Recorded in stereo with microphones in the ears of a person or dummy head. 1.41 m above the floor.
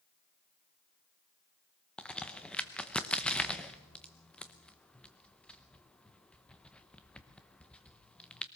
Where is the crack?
Centre (ahead or behind), 1.0 m.